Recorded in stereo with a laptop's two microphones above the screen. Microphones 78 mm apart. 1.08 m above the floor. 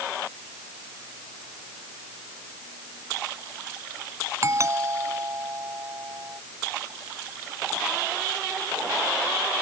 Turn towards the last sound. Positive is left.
turn(degrees=-40)  # may be behind; listen again after turning